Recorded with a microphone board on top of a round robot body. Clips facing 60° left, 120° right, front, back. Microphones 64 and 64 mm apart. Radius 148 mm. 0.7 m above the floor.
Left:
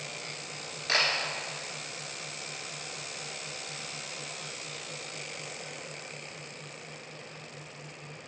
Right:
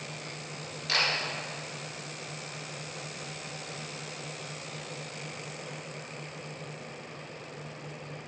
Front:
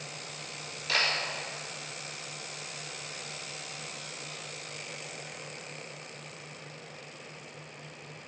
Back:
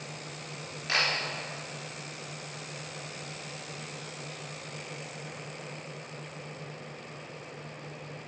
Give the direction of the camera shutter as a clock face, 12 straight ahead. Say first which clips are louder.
Left 1 dB, back 1 dB; 8 o'clock.